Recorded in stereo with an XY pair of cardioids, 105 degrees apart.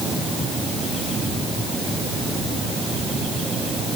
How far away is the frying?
No frying in this recording.